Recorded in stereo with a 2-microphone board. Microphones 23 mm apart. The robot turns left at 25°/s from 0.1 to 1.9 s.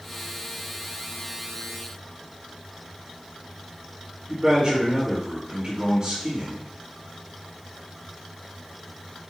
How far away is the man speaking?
About 3.5 m.